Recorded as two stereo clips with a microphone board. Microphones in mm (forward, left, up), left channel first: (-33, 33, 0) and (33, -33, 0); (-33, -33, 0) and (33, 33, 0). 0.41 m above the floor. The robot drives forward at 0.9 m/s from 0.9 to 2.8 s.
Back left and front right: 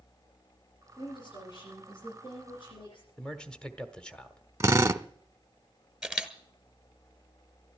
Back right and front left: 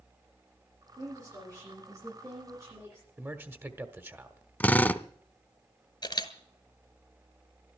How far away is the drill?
About 0.6 m.